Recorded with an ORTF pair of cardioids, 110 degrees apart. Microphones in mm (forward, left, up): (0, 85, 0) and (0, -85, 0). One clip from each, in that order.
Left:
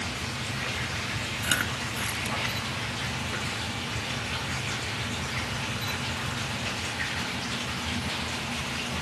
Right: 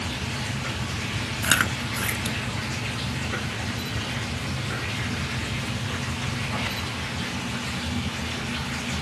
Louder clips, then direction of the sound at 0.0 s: Right 2 dB; 30° right.